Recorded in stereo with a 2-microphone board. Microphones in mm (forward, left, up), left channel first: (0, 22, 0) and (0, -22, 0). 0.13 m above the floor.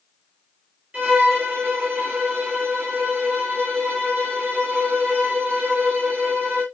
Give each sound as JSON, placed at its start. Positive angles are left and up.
{"t": 0.9, "sound": "a violin", "side_deg": -30, "distance_m": 1.9}